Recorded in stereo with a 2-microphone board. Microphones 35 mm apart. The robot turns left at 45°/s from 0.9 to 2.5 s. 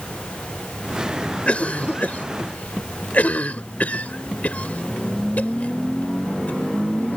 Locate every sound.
1.5 s a cough: 40° left (ahead or behind); by 7.2 s 50° left (ahead or behind)